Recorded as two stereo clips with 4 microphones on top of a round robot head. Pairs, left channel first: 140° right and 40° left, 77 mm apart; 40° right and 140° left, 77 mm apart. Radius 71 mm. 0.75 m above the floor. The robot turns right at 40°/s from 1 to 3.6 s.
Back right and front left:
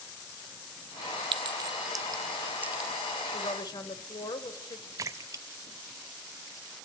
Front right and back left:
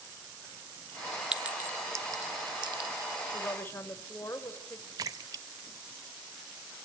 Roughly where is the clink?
Ahead left.